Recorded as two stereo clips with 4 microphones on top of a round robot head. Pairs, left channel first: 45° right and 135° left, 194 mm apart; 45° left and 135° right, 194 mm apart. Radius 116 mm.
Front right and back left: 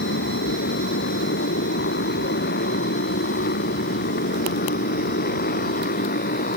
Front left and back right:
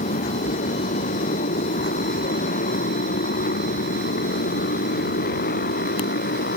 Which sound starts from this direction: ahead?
A motorcycle, at 0.0 s.